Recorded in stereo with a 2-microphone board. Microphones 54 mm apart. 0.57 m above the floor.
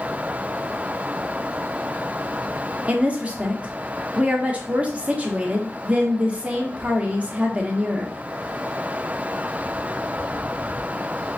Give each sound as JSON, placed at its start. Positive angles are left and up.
{"t": 2.9, "sound": "a woman speaking", "side_deg": -25, "distance_m": 1.0}